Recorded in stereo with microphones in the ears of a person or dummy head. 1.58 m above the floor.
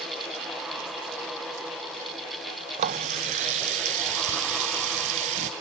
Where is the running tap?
30° right (ahead or behind), 0.6 m.